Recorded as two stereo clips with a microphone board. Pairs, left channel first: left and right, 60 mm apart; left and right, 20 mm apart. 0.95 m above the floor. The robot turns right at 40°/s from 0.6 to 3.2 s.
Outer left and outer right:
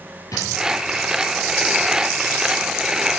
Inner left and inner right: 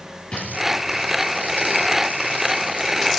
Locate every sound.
0.3 s a drawer: 75° left (ahead or behind), 6 m